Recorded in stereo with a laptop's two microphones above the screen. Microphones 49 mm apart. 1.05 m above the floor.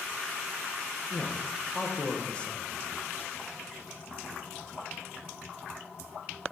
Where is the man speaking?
20° left (ahead or behind), 0.7 m.